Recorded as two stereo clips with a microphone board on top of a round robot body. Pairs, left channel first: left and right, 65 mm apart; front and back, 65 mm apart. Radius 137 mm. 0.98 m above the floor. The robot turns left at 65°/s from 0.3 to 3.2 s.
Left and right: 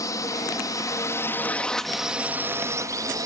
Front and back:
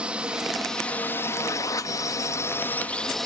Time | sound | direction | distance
0.0 | a drone | 110° left | ?